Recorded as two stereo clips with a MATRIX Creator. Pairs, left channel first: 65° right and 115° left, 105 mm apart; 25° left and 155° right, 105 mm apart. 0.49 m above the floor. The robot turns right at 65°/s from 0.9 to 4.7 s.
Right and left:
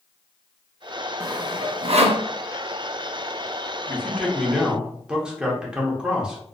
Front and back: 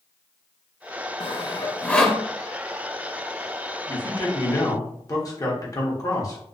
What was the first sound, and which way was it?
Sawing, 50° left.